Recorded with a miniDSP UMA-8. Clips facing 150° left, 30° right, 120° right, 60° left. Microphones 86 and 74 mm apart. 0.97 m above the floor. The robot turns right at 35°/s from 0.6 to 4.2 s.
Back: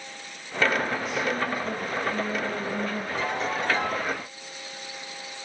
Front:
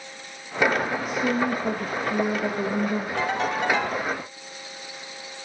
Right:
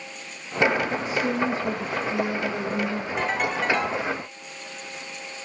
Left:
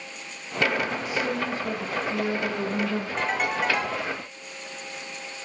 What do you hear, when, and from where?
1.1 s a woman speaking: 70° right, 1.1 m; by 3.1 s straight ahead, 1.1 m
3.2 s a ringtone: 40° right, 4.5 m; by 4.0 s 10° right, 4.5 m